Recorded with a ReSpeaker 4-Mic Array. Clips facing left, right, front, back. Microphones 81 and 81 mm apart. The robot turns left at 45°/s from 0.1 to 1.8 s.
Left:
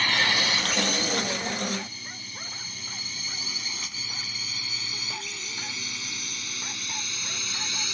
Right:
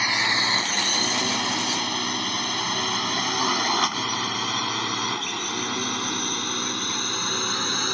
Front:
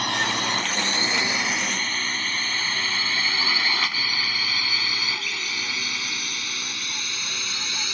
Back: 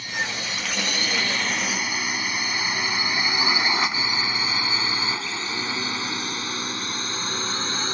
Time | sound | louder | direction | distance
0.0 | a drone | right 1 dB, front 5 dB | 15° right | ?